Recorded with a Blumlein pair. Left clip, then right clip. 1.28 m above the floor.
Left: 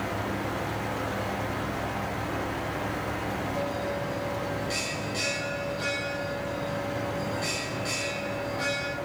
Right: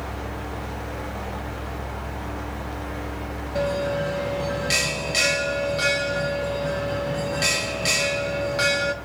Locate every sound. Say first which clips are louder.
0.0 s a fan: left 2 dB; 50° left, 3 m
3.5 s a bell: right 11 dB; 55° right, 0.6 m